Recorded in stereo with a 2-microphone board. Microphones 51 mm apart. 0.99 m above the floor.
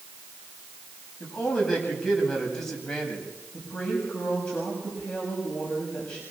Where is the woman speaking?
20° left (ahead or behind), 7 m.